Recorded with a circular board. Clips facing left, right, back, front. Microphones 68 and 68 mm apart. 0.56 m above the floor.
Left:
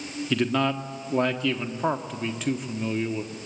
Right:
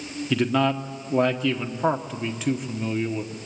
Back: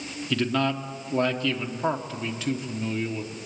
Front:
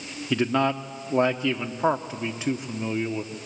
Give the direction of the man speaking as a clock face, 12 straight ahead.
12 o'clock.